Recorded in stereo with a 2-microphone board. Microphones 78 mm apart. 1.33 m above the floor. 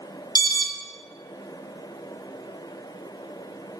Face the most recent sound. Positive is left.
turn(degrees=60)  # may be behind; listen again after turning